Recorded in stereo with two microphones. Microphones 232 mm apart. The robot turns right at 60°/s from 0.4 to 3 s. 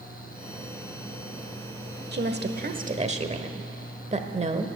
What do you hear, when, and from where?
2.1 s a woman speaking: 95° right, 1.1 m; by 4.7 s 40° right, 1.1 m